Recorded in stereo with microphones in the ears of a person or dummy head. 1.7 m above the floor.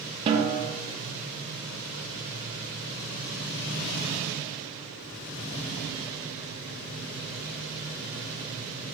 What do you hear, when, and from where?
0.3 s a snare drum: 30° right (ahead or behind), 0.5 m